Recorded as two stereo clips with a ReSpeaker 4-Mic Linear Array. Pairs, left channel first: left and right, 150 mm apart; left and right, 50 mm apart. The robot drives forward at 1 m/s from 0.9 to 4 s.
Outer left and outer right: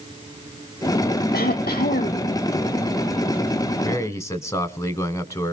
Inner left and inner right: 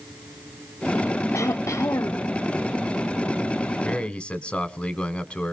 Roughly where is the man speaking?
Centre.